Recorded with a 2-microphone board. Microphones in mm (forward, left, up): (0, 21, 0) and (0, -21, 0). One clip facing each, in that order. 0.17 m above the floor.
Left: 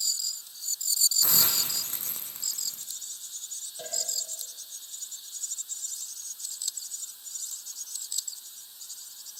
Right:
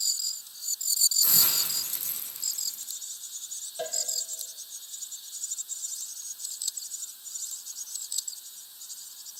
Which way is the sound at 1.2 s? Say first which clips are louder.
Left 1 dB; 40° left (ahead or behind).